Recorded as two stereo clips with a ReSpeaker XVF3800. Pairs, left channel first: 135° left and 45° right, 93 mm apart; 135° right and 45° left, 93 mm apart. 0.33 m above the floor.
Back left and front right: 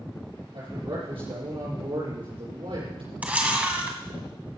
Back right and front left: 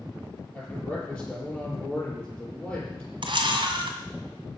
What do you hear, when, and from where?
0.5 s a man speaking: 55° right, 8 m
3.2 s a camera shutter: 30° left, 1.9 m